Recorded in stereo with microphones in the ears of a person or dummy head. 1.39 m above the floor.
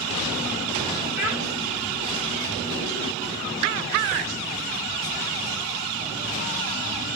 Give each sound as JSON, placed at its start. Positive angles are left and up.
{"t": 1.2, "sound": "a child speaking", "side_deg": 70, "distance_m": 3.5}